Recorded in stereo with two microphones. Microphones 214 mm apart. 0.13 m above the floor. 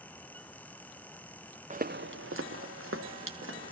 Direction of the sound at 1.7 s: 35° right (ahead or behind).